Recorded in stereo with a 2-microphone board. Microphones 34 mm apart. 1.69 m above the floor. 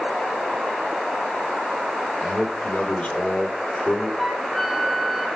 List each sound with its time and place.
2.2 s a man speaking: 35° left (ahead or behind), 4.5 m
4.2 s a flute: 5° left (ahead or behind), 3.5 m